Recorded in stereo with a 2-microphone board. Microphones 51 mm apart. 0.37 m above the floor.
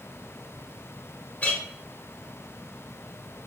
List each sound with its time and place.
1.4 s a clink: 30° left (ahead or behind), 0.8 m